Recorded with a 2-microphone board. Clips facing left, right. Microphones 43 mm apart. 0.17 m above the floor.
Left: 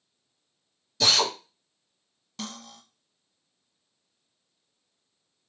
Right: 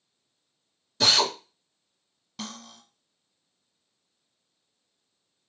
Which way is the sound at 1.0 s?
40° right (ahead or behind).